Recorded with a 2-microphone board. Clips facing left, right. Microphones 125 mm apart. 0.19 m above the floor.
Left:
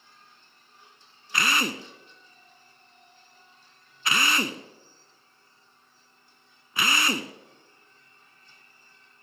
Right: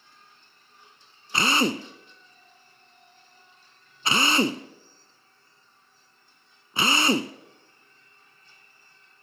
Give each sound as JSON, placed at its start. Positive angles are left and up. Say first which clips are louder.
{"t": 1.3, "sound": "a drill", "louder": "right 4 dB", "side_deg": -30, "distance_m": 0.8}